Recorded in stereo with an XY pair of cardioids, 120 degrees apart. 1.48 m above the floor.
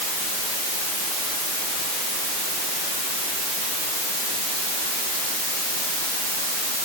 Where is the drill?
I don't hear a drill.